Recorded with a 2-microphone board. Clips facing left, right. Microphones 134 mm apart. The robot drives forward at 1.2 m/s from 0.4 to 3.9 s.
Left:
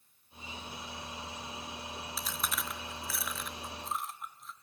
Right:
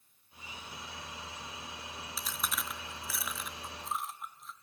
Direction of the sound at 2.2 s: 5° right (ahead or behind).